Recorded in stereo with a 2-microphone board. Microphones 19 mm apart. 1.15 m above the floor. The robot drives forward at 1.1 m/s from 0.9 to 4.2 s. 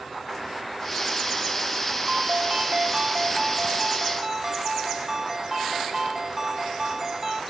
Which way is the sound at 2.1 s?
55° right (ahead or behind).